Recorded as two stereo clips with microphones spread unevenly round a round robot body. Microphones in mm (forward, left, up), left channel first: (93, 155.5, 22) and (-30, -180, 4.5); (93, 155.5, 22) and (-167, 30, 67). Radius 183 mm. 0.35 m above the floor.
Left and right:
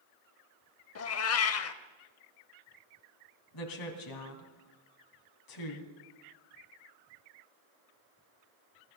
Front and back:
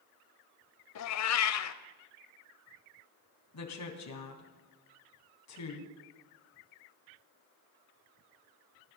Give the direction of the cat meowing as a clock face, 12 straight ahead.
11 o'clock.